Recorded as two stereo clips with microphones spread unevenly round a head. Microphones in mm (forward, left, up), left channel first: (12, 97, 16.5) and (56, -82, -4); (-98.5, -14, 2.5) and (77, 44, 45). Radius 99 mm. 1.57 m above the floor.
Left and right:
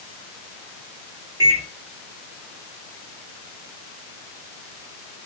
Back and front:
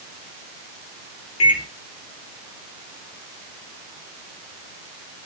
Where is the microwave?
150° right, 3.5 m.